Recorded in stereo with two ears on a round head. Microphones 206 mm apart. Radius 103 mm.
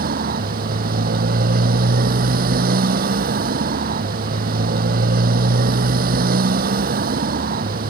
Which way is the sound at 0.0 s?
40° right (ahead or behind).